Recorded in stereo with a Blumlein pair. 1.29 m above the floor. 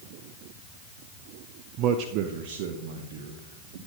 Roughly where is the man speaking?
Ahead right.